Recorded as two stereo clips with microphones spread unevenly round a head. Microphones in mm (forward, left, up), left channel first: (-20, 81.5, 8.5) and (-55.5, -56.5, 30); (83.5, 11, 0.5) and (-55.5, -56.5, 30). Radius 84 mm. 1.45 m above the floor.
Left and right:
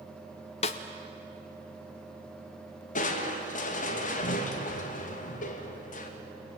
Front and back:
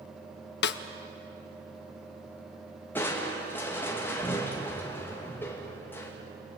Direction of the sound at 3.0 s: 105° left.